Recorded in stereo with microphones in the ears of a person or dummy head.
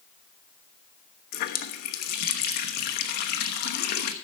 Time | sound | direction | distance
1.3 | a running tap | 50° left (ahead or behind) | 1.1 m